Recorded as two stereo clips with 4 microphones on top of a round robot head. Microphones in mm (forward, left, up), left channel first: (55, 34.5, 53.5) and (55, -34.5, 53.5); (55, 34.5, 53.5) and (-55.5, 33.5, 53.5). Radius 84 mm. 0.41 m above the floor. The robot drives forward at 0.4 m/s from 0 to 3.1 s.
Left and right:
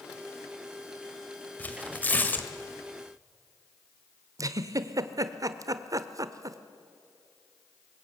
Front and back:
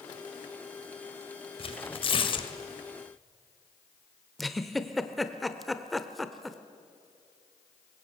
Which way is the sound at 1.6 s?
25° left.